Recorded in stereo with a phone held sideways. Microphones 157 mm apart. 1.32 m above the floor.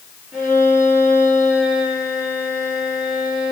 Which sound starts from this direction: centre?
A violin, at 0.3 s.